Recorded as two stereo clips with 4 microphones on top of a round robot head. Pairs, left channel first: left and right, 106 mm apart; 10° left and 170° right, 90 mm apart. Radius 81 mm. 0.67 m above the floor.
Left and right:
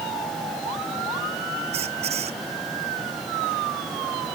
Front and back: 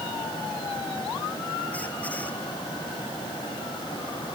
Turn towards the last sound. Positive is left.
turn(degrees=-70)